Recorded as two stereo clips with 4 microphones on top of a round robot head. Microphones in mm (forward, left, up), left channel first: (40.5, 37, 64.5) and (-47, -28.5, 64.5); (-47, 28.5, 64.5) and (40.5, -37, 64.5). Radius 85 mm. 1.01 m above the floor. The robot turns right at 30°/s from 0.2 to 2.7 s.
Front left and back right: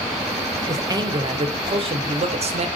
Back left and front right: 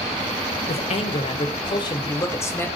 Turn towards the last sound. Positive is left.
turn(degrees=-145)